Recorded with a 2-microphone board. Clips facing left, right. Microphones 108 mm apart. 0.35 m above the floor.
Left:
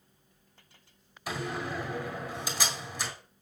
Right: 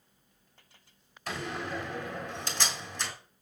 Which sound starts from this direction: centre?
A door slam, at 1.3 s.